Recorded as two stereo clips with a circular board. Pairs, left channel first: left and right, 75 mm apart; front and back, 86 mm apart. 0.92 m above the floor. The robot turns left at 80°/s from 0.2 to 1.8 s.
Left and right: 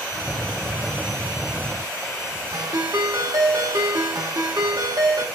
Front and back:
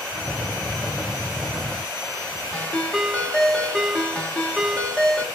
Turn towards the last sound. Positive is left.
turn(degrees=-75)